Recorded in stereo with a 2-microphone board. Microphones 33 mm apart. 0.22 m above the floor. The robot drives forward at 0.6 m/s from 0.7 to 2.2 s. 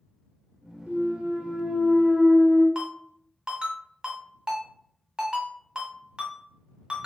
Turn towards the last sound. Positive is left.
turn(degrees=-30)  # may be behind; listen again after turning